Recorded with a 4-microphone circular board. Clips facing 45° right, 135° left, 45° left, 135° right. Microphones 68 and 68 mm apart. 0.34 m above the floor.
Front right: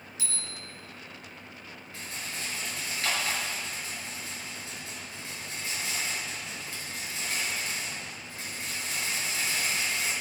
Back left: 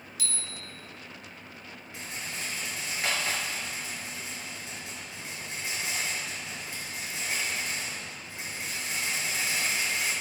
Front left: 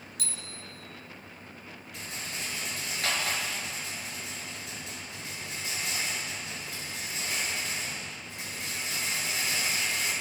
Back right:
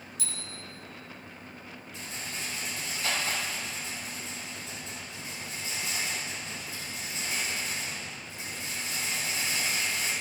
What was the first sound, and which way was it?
A bicycle bell, 20° left.